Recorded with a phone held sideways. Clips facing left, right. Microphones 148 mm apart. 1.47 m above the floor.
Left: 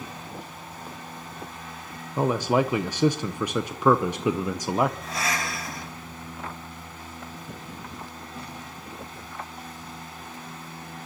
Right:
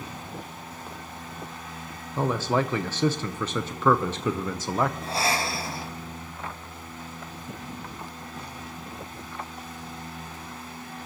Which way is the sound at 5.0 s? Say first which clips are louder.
Right 3 dB; 30° right (ahead or behind).